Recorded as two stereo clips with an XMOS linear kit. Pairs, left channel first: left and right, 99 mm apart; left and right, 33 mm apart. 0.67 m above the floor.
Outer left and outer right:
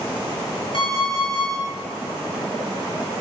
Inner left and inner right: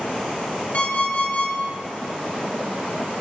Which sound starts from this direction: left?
An alarm clock, at 0.7 s.